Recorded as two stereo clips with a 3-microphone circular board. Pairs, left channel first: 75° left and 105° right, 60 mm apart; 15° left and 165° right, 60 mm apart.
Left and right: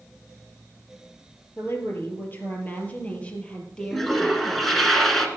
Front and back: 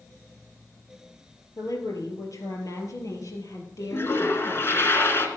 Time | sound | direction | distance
1.6 | a woman speaking | 30° left | 3.5 m
3.9 | a toilet flushing | 10° right | 1.9 m